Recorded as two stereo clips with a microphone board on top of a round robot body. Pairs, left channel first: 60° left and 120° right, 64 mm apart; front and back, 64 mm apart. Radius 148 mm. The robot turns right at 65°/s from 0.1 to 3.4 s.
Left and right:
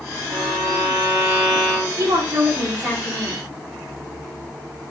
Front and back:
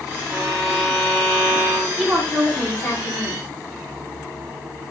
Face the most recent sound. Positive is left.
turn(degrees=-5)